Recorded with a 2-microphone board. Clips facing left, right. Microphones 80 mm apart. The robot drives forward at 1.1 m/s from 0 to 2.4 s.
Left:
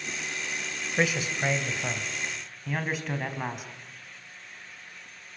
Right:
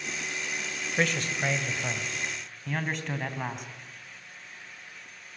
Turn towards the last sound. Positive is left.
turn(degrees=5)  # may be behind; listen again after turning